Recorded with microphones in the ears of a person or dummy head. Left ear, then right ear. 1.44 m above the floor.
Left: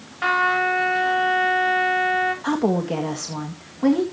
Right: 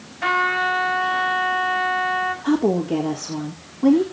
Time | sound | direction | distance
0.2 | a trumpet | 35° left (ahead or behind) | 8.5 m
2.4 | a woman speaking | 65° left (ahead or behind) | 2.0 m